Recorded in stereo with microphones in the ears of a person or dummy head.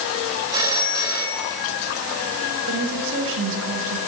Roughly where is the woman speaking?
Right.